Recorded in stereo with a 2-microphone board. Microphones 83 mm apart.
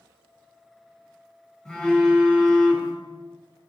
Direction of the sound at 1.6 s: 10° left (ahead or behind).